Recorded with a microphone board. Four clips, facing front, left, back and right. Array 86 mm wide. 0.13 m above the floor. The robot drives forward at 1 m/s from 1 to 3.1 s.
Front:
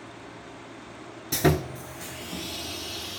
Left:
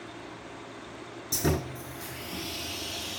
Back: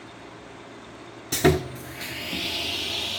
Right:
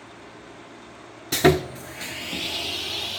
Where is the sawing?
100° right, 1.3 m; by 3.2 s 155° right, 2.5 m.